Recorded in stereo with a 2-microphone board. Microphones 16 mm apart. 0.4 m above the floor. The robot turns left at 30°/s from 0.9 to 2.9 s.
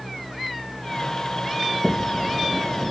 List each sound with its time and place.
1.6 s a sliding door: 50° right; by 2.9 s 90° right